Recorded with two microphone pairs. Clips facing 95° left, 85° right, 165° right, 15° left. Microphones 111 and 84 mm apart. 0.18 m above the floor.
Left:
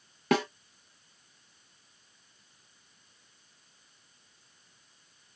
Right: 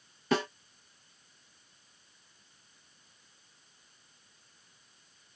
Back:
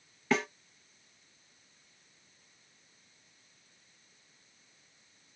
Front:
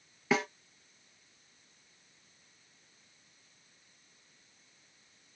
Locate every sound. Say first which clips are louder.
0.3 s a snare drum: left 3 dB, even; 100° left, 1.0 m